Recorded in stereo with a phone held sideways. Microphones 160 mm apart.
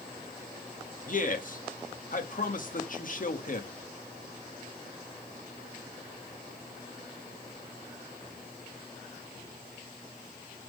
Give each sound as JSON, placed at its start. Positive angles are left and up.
{"t": 1.1, "sound": "a man speaking", "side_deg": 55, "distance_m": 1.3}